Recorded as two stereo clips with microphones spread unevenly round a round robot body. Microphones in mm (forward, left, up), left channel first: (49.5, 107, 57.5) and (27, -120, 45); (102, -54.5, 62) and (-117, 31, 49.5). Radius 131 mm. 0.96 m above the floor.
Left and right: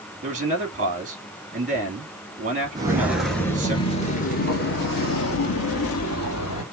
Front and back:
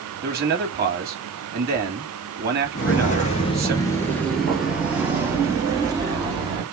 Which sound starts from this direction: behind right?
A man speaking, at 0.2 s.